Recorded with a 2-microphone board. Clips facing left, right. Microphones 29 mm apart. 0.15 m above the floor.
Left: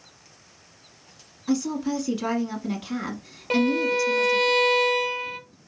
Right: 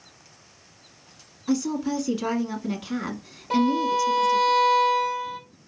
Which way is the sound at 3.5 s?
50° left (ahead or behind).